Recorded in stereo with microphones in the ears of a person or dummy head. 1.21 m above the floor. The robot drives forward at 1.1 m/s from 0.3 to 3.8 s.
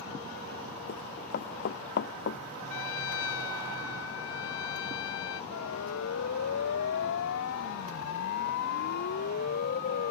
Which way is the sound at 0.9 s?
50° left (ahead or behind).